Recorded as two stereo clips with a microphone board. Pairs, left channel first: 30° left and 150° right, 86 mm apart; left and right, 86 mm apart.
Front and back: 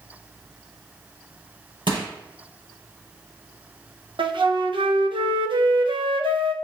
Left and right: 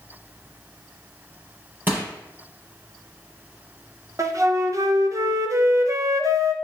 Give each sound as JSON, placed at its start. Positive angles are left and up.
{"t": 1.9, "sound": "crushing", "azimuth_deg": -155, "distance_m": 4.0}
{"t": 4.2, "sound": "a flute", "azimuth_deg": -140, "distance_m": 0.8}